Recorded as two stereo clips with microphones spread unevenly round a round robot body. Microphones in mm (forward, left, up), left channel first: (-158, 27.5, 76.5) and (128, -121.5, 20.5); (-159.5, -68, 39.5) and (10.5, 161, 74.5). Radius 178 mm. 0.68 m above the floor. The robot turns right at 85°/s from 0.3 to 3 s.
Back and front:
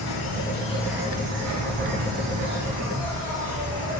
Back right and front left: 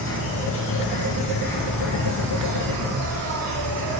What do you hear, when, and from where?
0.0 s an insect: 165° right, 6 m; by 4.0 s 65° left, 6 m